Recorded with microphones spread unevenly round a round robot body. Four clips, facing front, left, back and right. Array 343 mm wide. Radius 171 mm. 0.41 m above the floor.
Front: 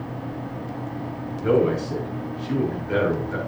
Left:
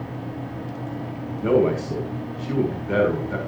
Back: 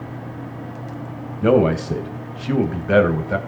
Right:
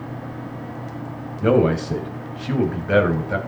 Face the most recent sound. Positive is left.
turn(degrees=-155)